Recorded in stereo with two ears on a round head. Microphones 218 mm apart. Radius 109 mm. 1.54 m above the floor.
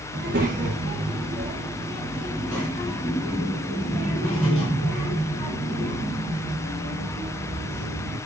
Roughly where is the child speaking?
Right.